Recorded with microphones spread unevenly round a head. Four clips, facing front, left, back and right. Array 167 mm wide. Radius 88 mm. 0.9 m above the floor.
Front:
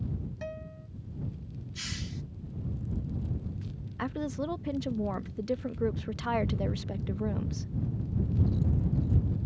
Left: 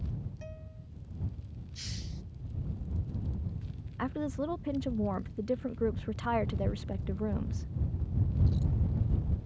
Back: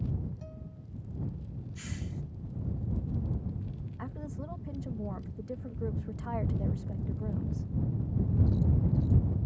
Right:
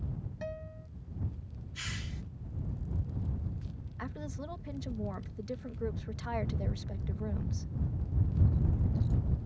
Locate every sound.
0.4 s a guitar: 20° right
1.8 s a hiss: 45° right
4.0 s a woman speaking: 30° left